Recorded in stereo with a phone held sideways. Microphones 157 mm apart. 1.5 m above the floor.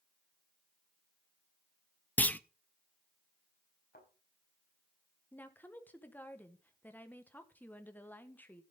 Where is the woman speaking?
10° left (ahead or behind), 1.3 m.